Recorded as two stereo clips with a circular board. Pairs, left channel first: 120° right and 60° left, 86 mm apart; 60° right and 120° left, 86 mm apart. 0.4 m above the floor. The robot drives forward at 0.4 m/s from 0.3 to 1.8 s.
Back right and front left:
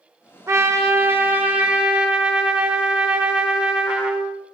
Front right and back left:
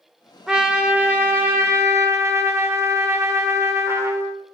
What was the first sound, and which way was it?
A trumpet, 40° left.